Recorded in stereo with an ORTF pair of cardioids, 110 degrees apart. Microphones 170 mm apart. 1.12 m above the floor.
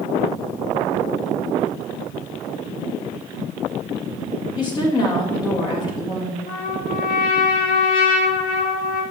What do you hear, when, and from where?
4.6 s a woman speaking: 25° left, 1.3 m
6.5 s a trumpet: 65° left, 1.9 m